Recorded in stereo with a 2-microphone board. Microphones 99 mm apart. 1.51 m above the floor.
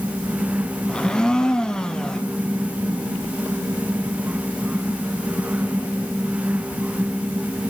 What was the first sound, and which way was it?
A blender, 10° left (ahead or behind).